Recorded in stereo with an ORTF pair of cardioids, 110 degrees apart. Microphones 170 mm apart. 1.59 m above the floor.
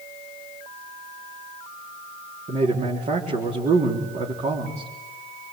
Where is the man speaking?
40° right, 4 m.